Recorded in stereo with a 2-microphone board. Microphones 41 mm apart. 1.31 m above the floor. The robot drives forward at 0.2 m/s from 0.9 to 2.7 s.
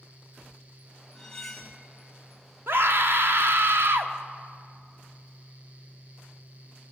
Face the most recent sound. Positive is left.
turn(degrees=-65)  # may be behind; listen again after turning